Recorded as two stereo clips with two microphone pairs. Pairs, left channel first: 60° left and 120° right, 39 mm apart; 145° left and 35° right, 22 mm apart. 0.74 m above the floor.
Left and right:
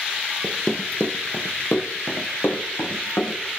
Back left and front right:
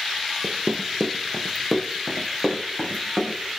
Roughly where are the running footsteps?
Ahead right.